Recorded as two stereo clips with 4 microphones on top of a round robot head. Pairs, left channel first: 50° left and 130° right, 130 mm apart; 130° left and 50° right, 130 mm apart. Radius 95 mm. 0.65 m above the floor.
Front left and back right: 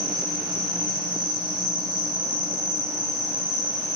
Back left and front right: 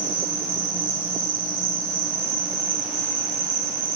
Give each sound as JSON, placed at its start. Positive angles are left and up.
{"t": 0.0, "sound": "an insect", "azimuth_deg": -75, "distance_m": 1.2}